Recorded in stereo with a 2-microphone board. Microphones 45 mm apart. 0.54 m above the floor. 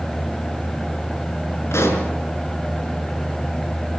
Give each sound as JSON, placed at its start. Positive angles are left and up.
{"t": 1.7, "sound": "a pop", "side_deg": 85, "distance_m": 5.5}